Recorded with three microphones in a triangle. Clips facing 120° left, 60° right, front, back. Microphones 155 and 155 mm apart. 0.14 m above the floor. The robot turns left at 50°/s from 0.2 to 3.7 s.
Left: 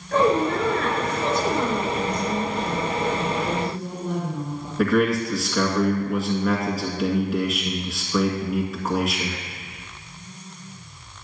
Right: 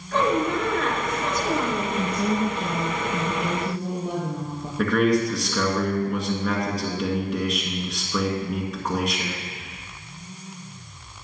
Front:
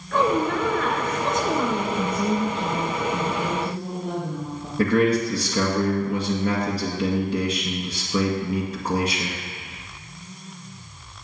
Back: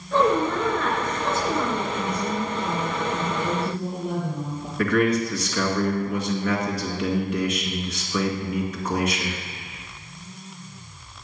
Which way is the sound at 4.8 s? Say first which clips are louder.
Even, front 2 dB; 35° left.